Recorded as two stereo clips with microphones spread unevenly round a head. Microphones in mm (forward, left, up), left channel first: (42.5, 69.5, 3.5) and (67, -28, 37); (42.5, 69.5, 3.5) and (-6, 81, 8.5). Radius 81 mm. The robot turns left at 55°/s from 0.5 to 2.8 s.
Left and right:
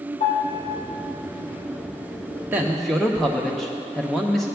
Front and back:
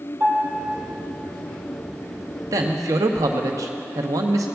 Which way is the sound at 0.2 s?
130° left.